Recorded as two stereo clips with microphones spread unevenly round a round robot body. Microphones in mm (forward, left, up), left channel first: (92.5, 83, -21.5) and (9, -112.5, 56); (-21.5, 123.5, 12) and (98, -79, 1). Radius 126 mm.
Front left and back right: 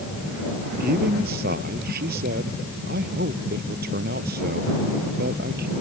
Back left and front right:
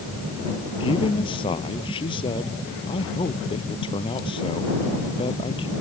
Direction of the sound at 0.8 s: 165° right.